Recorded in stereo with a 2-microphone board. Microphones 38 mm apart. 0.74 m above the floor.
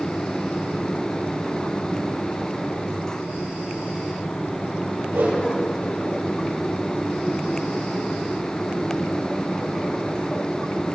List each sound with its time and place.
5.1 s a whoosh: 80° right, 4.5 m